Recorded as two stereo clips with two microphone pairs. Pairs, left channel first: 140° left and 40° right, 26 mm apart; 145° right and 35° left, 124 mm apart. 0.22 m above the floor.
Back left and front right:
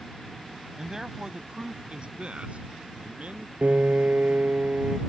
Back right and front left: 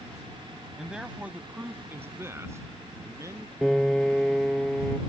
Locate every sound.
0.8 s a man speaking: 35° right; by 3.5 s 25° right
3.6 s a piano: 50° right